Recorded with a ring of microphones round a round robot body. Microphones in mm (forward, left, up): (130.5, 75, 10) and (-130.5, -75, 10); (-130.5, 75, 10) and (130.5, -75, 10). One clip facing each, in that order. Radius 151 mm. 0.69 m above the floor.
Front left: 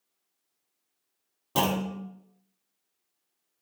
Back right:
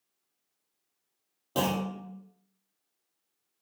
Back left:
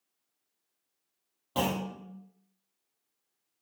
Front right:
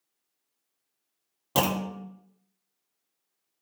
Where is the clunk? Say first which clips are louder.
Front left 1 dB, front right 3 dB; 45° right, 0.5 m.